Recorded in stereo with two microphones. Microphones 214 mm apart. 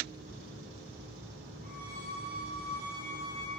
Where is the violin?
40° right (ahead or behind), 4 m.